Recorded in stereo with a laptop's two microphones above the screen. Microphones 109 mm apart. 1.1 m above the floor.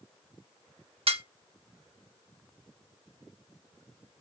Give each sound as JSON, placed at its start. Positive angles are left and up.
{"t": 1.1, "sound": "dishes clattering", "side_deg": -60, "distance_m": 1.1}